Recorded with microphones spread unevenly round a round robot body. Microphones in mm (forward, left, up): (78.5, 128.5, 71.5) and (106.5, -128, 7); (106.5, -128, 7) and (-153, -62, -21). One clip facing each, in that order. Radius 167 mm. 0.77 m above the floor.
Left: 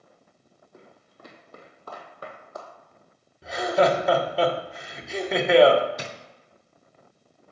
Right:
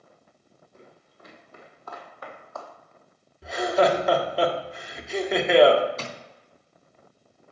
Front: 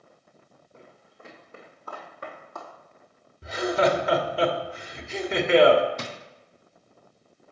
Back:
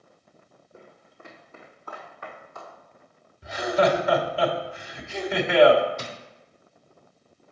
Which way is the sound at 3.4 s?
Straight ahead.